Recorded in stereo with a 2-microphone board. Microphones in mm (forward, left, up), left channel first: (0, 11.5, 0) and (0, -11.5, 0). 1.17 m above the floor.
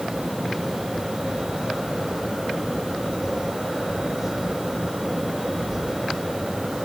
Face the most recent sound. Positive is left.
No sound to turn to.